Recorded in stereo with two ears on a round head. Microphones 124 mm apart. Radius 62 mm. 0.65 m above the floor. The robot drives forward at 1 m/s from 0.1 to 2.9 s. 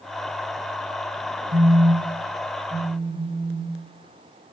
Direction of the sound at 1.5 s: 60° right (ahead or behind).